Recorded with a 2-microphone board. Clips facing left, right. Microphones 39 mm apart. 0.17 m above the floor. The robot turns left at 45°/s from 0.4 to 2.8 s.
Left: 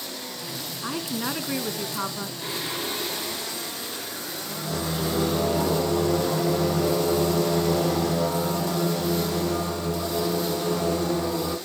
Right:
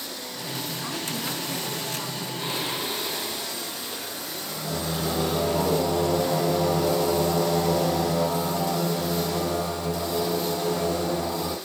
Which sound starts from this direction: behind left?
A woman speaking, at 0.8 s.